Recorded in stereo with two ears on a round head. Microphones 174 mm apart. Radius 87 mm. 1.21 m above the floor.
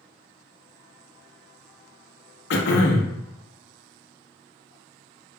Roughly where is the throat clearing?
Left.